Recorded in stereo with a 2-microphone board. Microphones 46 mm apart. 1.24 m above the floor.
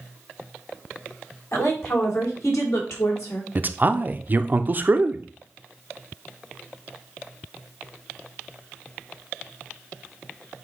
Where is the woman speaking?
75° left (ahead or behind), 4 m.